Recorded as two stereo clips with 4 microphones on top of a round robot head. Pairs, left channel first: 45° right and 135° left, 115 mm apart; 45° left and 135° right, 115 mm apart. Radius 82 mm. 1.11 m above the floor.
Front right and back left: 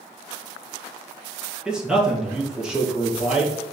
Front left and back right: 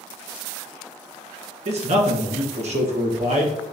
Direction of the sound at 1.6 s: 140° right.